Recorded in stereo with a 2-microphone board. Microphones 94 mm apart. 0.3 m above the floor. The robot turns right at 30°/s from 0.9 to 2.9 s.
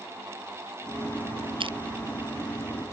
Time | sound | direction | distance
1.6 | crushing | 65° right (ahead or behind) | ?